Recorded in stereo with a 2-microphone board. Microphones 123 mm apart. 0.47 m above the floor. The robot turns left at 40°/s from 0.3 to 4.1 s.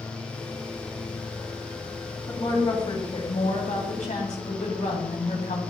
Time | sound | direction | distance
2.3 | a woman speaking | 150° left | 2.5 m